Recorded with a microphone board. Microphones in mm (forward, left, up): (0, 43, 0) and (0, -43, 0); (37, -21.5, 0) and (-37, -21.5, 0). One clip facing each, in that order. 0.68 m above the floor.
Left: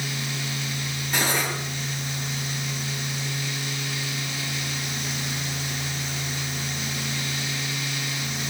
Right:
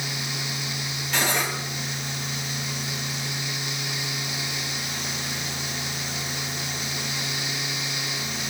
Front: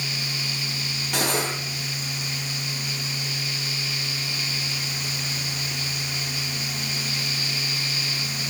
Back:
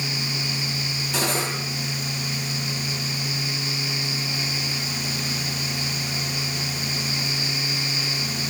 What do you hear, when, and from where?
1.1 s cutlery clinking: 10° left, 9.5 m